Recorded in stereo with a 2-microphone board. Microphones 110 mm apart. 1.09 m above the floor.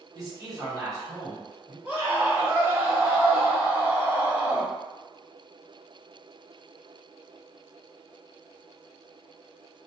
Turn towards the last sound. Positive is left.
turn(degrees=-20)  # may be behind; listen again after turning